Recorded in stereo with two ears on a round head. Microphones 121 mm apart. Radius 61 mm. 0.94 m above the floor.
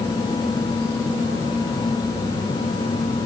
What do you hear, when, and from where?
Only background noise.